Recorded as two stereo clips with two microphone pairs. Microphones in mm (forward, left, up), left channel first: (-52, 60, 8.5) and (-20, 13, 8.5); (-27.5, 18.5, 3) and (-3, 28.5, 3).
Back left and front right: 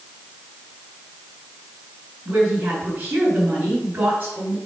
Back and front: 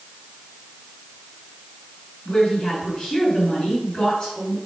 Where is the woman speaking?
110° right, 5.5 m.